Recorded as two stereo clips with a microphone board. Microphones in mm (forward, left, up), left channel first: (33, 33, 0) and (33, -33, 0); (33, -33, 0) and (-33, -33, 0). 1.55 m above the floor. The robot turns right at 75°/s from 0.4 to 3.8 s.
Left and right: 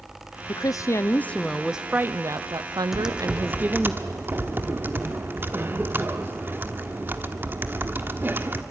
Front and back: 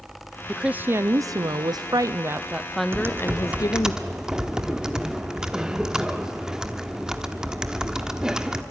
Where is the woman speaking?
95° left, 0.6 m; by 3.9 s 15° right, 0.6 m.